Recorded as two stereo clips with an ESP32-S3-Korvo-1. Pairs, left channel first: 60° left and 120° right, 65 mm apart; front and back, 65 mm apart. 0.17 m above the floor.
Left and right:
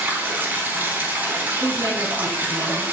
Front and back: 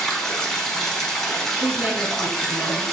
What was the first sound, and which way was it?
Running water, 80° right.